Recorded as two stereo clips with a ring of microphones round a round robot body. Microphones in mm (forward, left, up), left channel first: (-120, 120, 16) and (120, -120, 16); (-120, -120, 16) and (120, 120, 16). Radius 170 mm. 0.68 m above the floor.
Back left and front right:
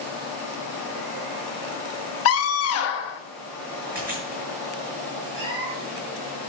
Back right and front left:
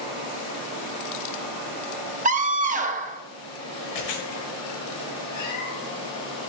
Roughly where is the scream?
Left.